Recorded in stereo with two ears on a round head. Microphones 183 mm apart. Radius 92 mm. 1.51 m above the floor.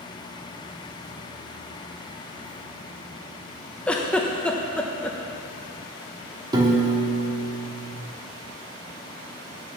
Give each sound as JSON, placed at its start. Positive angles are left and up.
{"t": 3.9, "sound": "a giggle", "side_deg": 5, "distance_m": 0.6}
{"t": 6.5, "sound": "a piano", "side_deg": -20, "distance_m": 1.1}